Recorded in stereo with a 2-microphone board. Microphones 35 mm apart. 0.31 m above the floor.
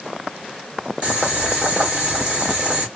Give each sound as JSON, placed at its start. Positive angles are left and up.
{"t": 1.0, "sound": "boiling", "side_deg": -30, "distance_m": 1.7}